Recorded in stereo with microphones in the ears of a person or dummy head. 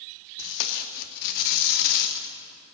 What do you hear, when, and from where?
0.4 s tape being pulled: 60° left (ahead or behind), 0.9 m